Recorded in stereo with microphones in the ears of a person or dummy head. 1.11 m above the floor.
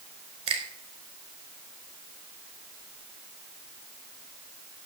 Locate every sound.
0.5 s a finger snap: 35° right (ahead or behind), 5 m